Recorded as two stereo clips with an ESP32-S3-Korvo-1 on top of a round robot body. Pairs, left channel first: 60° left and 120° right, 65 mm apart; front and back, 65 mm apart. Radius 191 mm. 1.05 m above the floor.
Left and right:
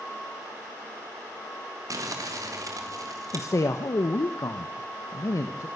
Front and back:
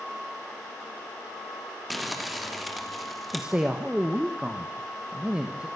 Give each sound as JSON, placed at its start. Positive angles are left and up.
{"t": 1.9, "sound": "crumpling", "azimuth_deg": -90, "distance_m": 3.5}
{"t": 3.3, "sound": "a man speaking", "azimuth_deg": 105, "distance_m": 1.0}